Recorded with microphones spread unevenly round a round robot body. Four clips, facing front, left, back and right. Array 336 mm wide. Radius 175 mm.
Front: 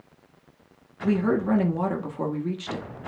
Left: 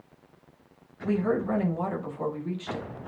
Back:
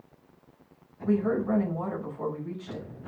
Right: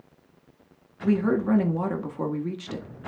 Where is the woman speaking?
45° right, 1.6 m.